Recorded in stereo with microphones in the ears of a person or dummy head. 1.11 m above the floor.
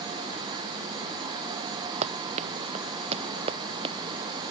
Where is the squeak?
No squeak in this recording.